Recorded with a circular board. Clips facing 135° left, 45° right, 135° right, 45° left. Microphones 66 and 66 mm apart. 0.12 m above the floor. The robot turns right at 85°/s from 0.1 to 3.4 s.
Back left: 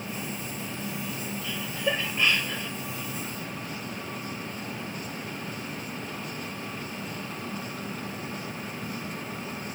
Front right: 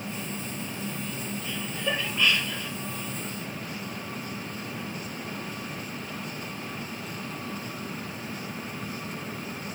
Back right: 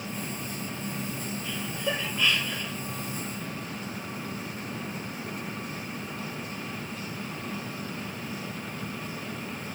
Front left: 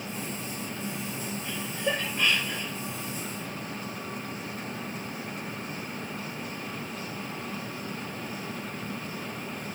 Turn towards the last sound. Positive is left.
turn(degrees=180)